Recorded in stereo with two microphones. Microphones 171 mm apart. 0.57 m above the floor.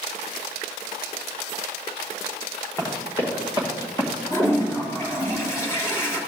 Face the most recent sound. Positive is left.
turn(degrees=15)  # may be behind; listen again after turning